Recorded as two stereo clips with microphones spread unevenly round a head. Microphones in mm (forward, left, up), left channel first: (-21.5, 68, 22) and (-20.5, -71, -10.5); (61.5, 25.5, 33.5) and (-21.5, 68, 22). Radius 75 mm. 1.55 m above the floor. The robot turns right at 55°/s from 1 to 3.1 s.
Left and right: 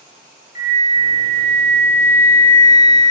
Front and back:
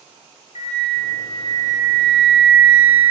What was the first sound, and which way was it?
A flute, 10° right.